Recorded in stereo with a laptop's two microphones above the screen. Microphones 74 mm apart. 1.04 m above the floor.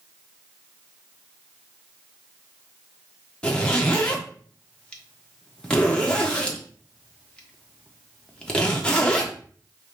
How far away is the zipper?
About 1.1 m.